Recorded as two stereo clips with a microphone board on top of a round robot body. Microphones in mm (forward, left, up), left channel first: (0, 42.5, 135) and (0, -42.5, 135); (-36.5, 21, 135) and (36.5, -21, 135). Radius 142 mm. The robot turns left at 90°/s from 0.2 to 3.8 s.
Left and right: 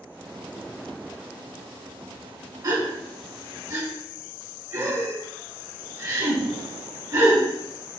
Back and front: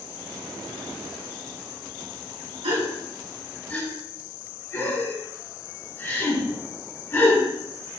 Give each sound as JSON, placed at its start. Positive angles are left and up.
{"t": 2.6, "sound": "a gasp", "azimuth_deg": -40, "distance_m": 2.5}